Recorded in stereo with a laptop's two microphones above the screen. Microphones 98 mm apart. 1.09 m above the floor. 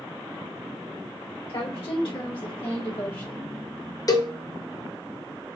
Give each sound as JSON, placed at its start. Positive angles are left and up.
{"t": 1.5, "sound": "a woman speaking", "side_deg": 70, "distance_m": 1.9}
{"t": 4.1, "sound": "a cowbell", "side_deg": 35, "distance_m": 0.6}